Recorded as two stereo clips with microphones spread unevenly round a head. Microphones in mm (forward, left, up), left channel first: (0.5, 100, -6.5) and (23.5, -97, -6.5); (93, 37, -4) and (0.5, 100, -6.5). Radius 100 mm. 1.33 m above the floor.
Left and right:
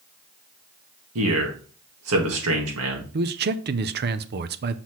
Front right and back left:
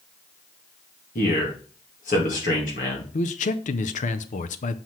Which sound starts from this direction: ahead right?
A man speaking, at 3.1 s.